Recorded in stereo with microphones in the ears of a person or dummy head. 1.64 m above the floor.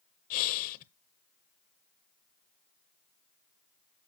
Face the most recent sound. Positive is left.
turn(degrees=45)  # may be behind; listen again after turning